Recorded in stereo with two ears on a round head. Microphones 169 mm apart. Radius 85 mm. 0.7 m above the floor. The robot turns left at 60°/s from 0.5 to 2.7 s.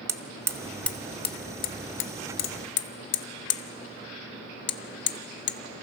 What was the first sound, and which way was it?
Hammering, 15° right (ahead or behind).